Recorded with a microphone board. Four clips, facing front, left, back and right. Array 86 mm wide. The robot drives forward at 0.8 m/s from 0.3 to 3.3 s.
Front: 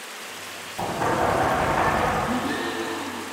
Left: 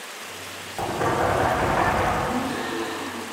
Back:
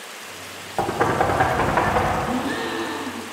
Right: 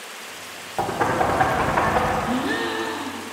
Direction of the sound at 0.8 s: 155° right.